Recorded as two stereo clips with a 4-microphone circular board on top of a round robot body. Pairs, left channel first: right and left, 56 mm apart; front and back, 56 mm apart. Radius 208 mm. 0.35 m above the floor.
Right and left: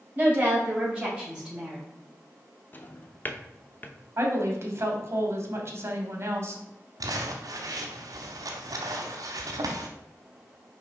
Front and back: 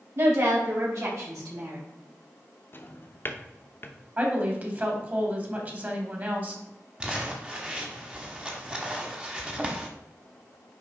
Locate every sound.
0.1 s a woman speaking: 150° left, 4 m; by 1.8 s 170° left, 3.5 m
2.7 s a drawer: 40° right, 0.9 m
4.2 s a woman speaking: 130° left, 2 m
7.0 s crumpling: 105° left, 0.8 m